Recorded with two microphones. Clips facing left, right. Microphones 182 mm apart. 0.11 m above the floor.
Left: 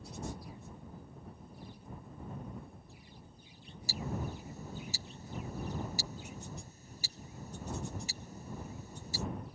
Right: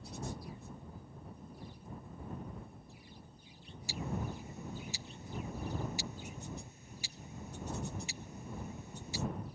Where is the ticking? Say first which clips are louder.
Even; 45° left (ahead or behind).